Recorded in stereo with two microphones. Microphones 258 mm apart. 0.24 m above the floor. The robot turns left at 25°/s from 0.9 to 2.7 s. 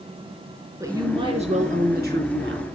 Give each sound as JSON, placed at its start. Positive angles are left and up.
{"t": 0.8, "sound": "a woman speaking", "azimuth_deg": -15, "distance_m": 3.5}